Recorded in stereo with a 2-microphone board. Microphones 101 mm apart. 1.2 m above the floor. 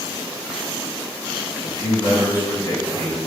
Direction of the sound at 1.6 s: 45° left (ahead or behind).